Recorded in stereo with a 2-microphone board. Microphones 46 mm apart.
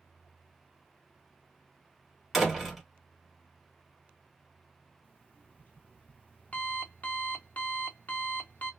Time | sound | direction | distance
2.3 | a door slam | 5° right (ahead or behind) | 1.2 m
5.0 | an alarm clock | 40° left (ahead or behind) | 0.8 m